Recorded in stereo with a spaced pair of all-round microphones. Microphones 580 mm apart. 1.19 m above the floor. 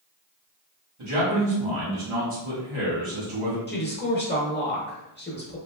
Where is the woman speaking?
20° left (ahead or behind), 0.6 m.